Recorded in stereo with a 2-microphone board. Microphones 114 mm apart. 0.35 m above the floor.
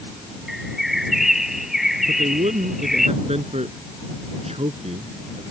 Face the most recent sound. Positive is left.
turn(degrees=-70)  # may be behind; listen again after turning